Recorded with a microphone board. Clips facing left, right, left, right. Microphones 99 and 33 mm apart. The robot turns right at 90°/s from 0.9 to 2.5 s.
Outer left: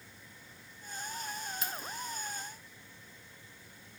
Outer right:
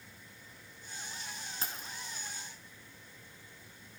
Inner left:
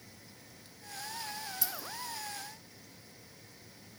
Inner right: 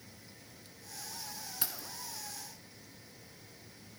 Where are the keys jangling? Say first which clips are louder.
Outer left 3 dB, inner left 2 dB; 35° right (ahead or behind), 1.9 m; by 1.9 s 55° right (ahead or behind), 1.9 m.